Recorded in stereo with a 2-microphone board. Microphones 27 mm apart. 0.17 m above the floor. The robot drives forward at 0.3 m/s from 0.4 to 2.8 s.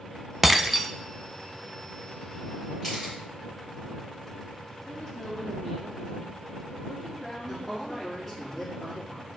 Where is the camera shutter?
5° left (ahead or behind), 4 m.